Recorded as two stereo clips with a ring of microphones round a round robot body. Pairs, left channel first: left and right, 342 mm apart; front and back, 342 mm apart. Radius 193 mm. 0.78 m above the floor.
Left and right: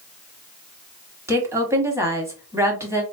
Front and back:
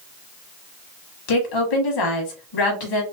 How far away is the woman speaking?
About 1.3 m.